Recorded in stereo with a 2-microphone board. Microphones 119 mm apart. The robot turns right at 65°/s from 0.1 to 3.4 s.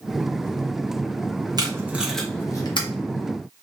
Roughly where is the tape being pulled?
Right.